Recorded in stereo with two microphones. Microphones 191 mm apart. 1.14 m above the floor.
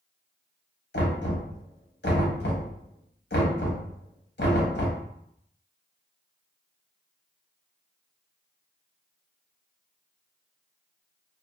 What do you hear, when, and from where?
0.9 s knocking: 65° left (ahead or behind), 0.7 m